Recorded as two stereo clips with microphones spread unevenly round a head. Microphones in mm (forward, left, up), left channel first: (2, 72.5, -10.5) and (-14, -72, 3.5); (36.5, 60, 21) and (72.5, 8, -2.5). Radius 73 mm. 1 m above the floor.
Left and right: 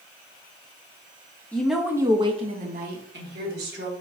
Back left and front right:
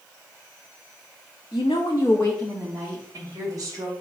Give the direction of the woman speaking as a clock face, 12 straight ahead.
7 o'clock.